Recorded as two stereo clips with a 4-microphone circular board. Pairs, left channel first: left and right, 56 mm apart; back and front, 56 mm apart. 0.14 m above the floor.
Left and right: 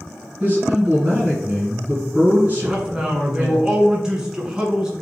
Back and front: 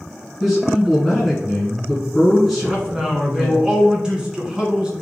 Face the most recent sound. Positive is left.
turn(degrees=-40)